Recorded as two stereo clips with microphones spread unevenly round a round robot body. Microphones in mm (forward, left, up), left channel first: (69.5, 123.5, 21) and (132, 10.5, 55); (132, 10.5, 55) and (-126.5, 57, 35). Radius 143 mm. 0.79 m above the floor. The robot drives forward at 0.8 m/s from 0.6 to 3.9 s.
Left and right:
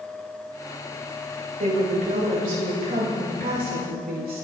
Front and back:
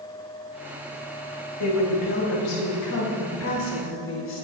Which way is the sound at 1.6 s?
40° right.